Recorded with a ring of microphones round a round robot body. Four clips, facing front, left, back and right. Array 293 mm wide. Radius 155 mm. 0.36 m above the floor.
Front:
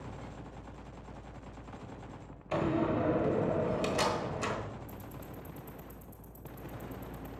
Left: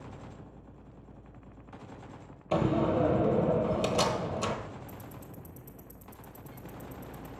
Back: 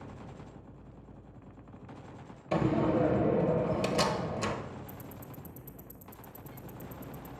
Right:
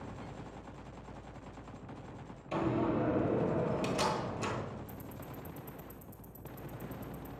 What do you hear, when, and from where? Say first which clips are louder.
2.5 s a door slam: left 5 dB, back 3 dB; 125° left, 1.2 m
4.9 s ticking: even, even; 145° left, 1.1 m